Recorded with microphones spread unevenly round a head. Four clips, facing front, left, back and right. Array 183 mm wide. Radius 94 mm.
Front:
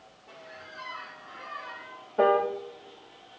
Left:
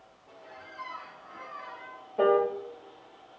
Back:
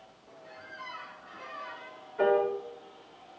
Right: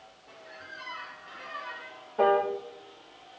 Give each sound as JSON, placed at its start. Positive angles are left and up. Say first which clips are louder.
{"t": 0.4, "sound": "a squeak", "louder": "left 1 dB, front 2 dB", "azimuth_deg": 30, "distance_m": 5.5}
{"t": 2.2, "sound": "a piano", "louder": "even, front 3 dB", "azimuth_deg": 15, "distance_m": 2.0}